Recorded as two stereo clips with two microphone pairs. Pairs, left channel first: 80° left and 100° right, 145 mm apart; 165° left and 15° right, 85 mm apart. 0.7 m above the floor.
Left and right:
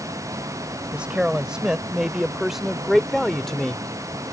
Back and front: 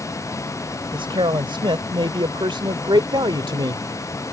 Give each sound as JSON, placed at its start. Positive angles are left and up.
{"t": 0.9, "sound": "a man speaking", "azimuth_deg": -20}